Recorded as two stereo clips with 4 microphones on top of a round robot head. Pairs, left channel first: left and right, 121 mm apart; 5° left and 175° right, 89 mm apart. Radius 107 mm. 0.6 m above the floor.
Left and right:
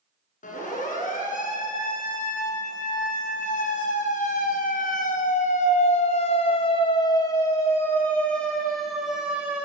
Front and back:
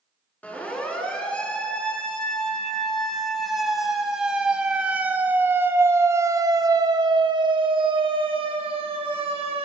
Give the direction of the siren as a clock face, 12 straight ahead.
9 o'clock.